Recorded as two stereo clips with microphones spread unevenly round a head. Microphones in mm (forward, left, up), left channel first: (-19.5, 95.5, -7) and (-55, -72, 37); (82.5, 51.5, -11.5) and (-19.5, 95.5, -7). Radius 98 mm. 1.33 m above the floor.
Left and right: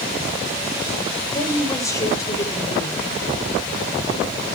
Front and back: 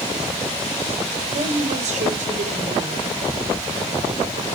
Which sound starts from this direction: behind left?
A woman speaking, at 1.3 s.